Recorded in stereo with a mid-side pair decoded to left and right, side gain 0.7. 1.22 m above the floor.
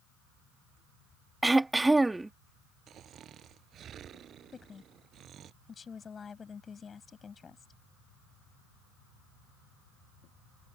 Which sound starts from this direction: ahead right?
Snoring, at 2.9 s.